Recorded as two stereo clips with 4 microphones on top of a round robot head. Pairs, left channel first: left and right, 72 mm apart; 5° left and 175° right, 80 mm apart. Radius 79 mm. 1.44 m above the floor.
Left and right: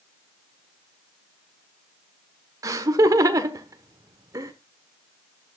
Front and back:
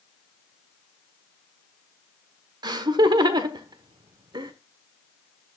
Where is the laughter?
135° right, 1.4 m.